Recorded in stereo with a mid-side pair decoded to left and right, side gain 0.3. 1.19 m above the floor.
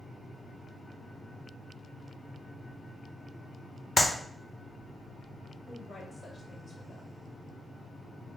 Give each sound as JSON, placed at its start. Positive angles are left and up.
{"t": 4.0, "sound": "a clap", "azimuth_deg": 30, "distance_m": 0.9}
{"t": 5.7, "sound": "a woman speaking", "azimuth_deg": 45, "distance_m": 1.9}